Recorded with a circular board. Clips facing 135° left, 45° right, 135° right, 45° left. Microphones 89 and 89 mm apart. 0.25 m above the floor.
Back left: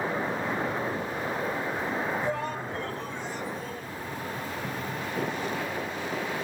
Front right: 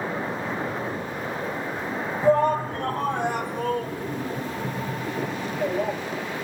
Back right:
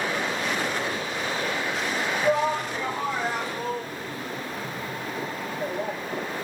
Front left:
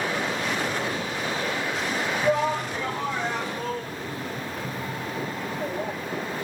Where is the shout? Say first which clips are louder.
Front right 11 dB, even; 50° right.